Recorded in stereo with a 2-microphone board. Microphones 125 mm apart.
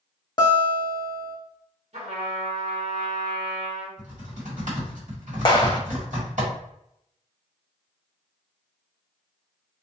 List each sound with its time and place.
0.4 s a guitar: 35° left (ahead or behind), 0.6 m
1.9 s a trumpet: 55° right (ahead or behind), 1.4 m
4.0 s typing on a keyboard: 75° right (ahead or behind), 1.4 m
5.5 s a clap: 35° left (ahead or behind), 0.6 m